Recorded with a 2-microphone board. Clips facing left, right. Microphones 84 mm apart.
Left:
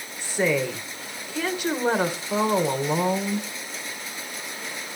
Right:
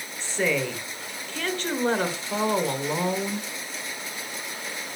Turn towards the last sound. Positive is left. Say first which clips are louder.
# left 2 dB
turn(degrees=10)  # may be behind; listen again after turning